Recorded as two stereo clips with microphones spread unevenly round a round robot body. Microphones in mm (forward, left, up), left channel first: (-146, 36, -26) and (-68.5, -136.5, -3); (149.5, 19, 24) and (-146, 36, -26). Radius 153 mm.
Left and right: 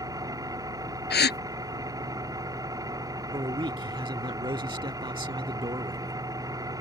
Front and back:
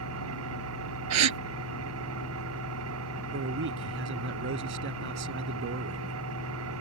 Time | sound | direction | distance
0.0 | an engine running | 135° right | ?
1.1 | a gasp | 145° left | ?
3.3 | a man speaking | 130° right | ?